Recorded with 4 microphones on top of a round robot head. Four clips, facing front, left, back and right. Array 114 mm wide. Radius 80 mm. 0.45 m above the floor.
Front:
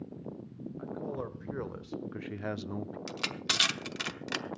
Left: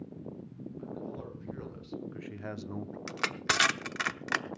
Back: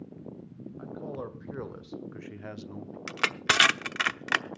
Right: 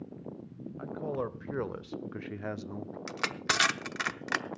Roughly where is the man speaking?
Right.